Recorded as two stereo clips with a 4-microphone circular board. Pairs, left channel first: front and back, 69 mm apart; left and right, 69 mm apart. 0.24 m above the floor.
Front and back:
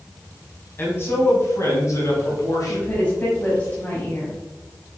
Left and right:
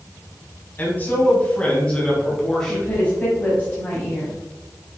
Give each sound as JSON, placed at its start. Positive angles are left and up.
{"t": 0.8, "sound": "a man speaking", "azimuth_deg": 40, "distance_m": 1.5}
{"t": 2.7, "sound": "a woman speaking", "azimuth_deg": 40, "distance_m": 1.2}